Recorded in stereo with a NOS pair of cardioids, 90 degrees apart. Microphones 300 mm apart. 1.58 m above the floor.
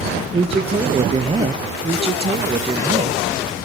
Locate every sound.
0.3 s a man speaking: 20° right, 1.0 m
1.8 s a man speaking: 20° right, 1.6 m